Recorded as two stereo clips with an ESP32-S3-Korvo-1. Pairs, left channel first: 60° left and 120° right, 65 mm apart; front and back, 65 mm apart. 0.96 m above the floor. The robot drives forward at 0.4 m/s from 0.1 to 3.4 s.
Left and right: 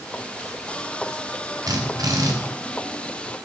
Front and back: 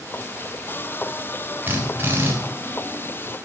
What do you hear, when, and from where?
1.7 s a drill: 120° right, 4 m; by 2.3 s 125° right, 4 m